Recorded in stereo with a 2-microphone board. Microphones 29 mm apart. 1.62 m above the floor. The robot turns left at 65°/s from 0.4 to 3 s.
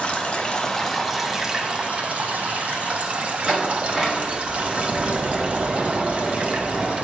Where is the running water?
45° left, 0.8 m; by 7.0 s 125° right, 0.8 m.